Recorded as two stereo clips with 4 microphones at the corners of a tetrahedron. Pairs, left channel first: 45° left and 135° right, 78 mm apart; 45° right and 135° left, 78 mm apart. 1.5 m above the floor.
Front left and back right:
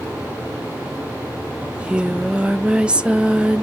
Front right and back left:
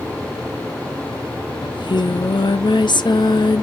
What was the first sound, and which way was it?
Singing, 55° right.